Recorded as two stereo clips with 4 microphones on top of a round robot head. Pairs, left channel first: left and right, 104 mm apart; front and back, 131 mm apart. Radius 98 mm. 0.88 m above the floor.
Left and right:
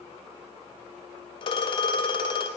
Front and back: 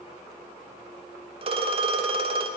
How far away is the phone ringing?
About 1.0 m.